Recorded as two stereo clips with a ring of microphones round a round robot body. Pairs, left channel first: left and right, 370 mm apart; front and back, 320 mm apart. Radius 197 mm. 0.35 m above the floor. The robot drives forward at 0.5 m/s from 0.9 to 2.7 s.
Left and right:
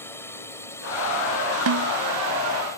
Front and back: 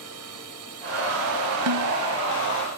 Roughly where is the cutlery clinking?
No cutlery clinking in this recording.